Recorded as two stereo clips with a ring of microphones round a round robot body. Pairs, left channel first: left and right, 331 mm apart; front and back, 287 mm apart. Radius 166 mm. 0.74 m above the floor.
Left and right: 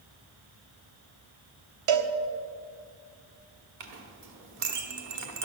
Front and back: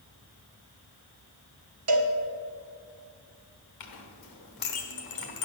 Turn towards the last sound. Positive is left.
turn(degrees=-45)